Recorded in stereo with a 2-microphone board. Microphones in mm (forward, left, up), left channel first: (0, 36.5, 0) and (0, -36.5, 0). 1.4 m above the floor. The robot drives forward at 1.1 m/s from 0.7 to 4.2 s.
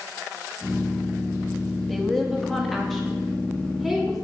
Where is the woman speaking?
Centre (ahead or behind), 1.7 m.